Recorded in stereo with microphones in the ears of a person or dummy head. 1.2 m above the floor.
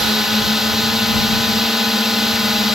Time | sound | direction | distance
0.0 | a drone | 5° right (ahead or behind) | ?